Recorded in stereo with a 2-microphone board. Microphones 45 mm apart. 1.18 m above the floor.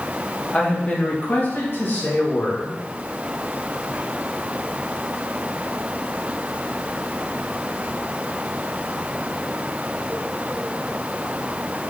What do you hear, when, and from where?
0.5 s a man speaking: 25° left (ahead or behind), 1.6 m; by 2.8 s 75° left (ahead or behind), 2.5 m